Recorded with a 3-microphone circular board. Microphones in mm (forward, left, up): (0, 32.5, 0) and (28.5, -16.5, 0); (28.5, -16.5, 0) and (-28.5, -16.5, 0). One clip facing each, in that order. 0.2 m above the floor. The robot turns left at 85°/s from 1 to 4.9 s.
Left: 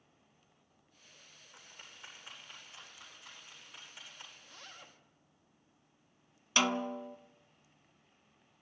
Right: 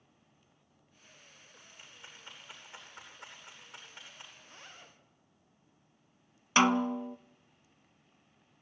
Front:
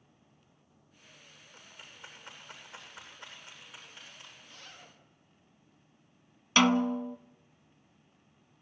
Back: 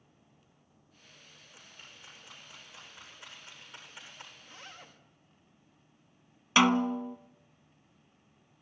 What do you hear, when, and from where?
1.5 s a rattle: 105° left, 8.5 m; by 4.3 s 130° right, 8.5 m
4.4 s a zipper: 105° right, 5 m; by 5.0 s 145° right, 5 m
6.6 s a snare drum: 105° right, 0.8 m